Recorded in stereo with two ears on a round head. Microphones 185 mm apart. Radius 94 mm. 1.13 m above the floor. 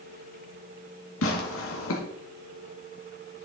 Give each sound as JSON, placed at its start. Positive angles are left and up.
{"t": 1.2, "sound": "tearing paper", "side_deg": 75, "distance_m": 1.9}